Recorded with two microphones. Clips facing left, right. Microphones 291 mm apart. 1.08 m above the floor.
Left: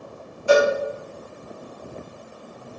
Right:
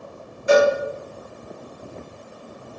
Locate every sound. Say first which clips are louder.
0.5 s a cowbell: right 1 dB; 20° right (ahead or behind), 1.2 m